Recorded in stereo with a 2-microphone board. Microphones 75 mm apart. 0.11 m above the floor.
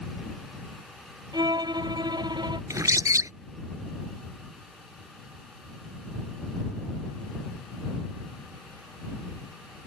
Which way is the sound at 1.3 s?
65° right (ahead or behind).